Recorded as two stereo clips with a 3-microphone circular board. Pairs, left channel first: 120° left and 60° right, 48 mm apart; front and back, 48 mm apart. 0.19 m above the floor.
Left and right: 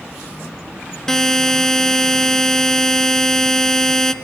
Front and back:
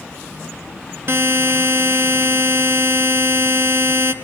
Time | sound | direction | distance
1.1 | a buzzer | 160° right | 1.1 m